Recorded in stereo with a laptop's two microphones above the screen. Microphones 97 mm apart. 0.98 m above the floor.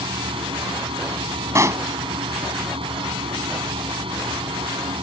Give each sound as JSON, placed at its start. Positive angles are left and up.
{"t": 0.0, "sound": "a fan", "side_deg": -70}
{"t": 1.6, "sound": "a pop", "side_deg": -30}